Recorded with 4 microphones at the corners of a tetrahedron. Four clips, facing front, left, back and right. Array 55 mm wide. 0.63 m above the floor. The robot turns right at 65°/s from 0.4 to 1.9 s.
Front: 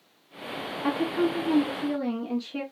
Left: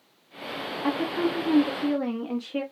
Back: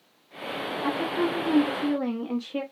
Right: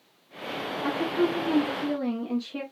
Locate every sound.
0.8 s a woman speaking: 60° left, 0.8 m; by 2.6 s 130° left, 0.8 m